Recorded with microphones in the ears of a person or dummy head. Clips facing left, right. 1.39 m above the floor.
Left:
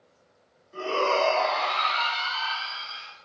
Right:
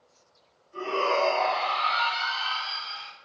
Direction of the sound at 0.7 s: 55° left (ahead or behind).